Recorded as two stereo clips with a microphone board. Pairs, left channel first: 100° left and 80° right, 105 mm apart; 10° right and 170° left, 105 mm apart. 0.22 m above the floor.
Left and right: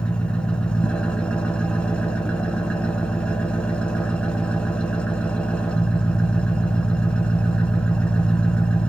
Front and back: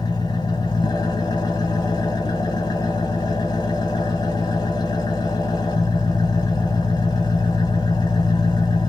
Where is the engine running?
25° left, 1.3 m.